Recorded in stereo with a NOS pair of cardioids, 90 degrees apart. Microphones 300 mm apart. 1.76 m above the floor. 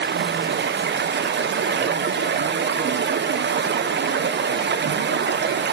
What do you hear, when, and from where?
0.0 s running water: 40° right, 1.2 m